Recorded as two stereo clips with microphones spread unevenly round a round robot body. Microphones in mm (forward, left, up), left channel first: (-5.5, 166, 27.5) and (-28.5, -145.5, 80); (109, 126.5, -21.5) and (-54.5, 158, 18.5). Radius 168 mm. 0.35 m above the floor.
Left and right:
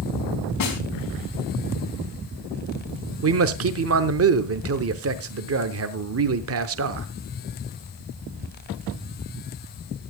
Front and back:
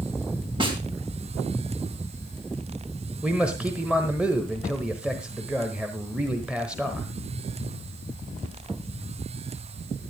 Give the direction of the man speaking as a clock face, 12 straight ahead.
3 o'clock.